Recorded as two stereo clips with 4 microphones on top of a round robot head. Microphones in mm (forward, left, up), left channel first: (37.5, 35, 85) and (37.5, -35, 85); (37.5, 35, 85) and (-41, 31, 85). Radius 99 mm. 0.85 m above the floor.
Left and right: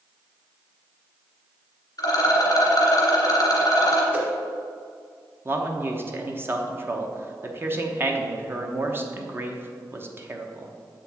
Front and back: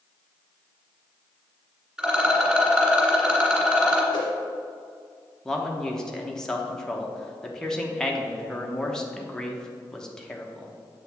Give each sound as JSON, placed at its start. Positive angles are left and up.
{"t": 2.0, "sound": "a rattle", "azimuth_deg": 105, "distance_m": 1.8}
{"t": 4.1, "sound": "a whoosh", "azimuth_deg": -35, "distance_m": 1.6}
{"t": 5.5, "sound": "a man speaking", "azimuth_deg": -70, "distance_m": 0.9}